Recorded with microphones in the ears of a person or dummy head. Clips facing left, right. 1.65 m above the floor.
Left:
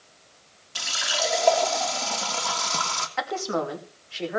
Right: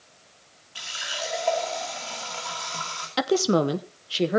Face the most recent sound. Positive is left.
turn(degrees=-55)  # may be behind; listen again after turning